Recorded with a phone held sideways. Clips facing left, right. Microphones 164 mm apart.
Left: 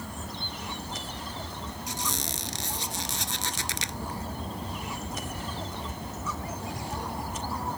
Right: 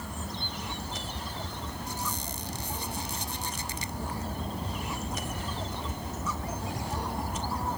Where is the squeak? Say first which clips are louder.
Left 3 dB; 80° left.